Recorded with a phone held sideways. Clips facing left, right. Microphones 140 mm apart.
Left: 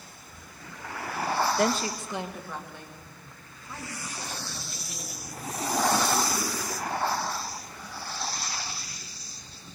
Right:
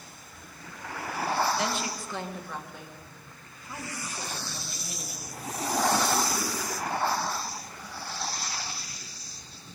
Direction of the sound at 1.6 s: 55° left (ahead or behind).